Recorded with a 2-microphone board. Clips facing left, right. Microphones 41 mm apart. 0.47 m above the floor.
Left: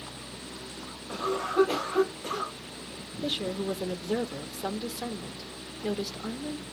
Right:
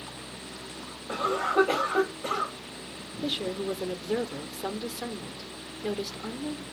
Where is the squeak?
I don't hear a squeak.